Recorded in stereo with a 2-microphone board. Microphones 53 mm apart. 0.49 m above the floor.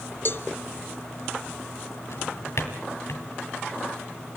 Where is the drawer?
70° left (ahead or behind), 2 m.